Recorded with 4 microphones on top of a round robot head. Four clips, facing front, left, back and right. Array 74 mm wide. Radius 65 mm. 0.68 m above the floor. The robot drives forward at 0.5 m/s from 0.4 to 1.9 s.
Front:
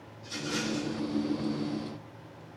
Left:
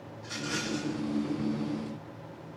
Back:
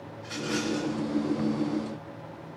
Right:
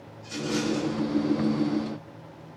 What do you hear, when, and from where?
0.2 s a rattle: 150° left, 3 m